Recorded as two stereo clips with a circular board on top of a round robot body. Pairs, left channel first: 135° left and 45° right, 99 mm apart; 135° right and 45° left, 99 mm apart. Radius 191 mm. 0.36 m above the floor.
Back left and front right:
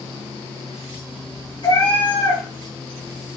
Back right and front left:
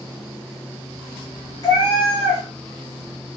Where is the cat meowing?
175° left, 2.0 m.